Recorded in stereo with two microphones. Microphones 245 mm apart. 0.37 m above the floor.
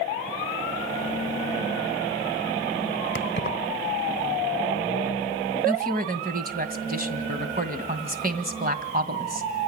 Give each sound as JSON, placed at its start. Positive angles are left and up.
{"t": 3.1, "sound": "keys jangling", "side_deg": 45, "distance_m": 1.0}
{"t": 5.7, "sound": "a woman speaking", "side_deg": -35, "distance_m": 2.0}